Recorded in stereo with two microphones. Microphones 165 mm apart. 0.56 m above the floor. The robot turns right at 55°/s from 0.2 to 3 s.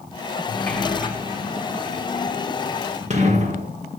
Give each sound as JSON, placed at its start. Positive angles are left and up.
{"t": 0.5, "sound": "a sliding door", "side_deg": 15, "distance_m": 1.2}